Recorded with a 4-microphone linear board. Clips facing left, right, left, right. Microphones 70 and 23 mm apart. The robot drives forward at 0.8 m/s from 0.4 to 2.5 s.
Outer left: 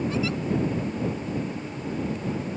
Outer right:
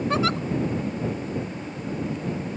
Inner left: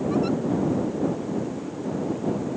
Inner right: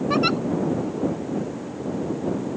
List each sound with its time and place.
0.1 s a giggle: 65° right (ahead or behind)